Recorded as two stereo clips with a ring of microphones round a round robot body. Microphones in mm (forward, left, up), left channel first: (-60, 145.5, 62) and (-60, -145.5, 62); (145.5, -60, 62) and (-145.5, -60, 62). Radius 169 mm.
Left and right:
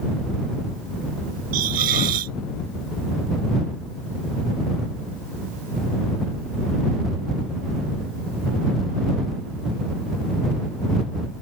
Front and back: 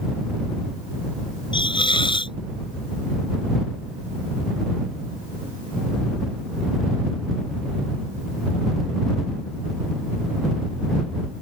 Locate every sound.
1.5 s a hiss: 75° right